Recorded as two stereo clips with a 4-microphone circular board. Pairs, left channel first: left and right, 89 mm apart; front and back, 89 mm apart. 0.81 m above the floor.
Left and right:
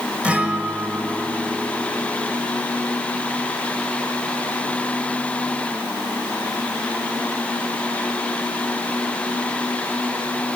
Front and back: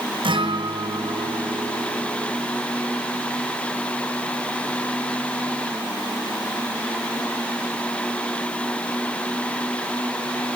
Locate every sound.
0.2 s a guitar: 165° right, 2.5 m